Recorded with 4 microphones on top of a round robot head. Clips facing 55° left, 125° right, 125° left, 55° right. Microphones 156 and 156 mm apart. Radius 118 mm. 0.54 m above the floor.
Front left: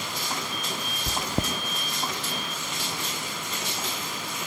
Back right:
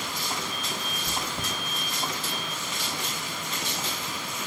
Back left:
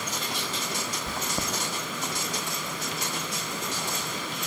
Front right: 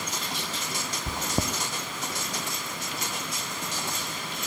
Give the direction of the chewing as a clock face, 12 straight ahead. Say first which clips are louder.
Front left 7 dB, front right 5 dB; 12 o'clock.